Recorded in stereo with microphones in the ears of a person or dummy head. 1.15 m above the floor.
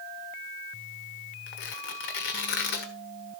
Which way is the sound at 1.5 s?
50° left (ahead or behind).